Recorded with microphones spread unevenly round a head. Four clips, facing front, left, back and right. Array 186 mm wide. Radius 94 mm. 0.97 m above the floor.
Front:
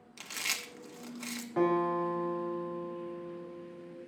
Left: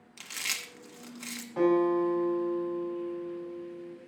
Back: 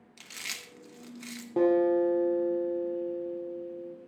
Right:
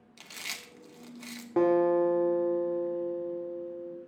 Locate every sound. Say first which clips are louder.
0.2 s chewing: left 4 dB, front 4 dB; 15° right, 1.1 m
1.6 s a guitar: right 1 dB, back 5 dB; 130° right, 2.5 m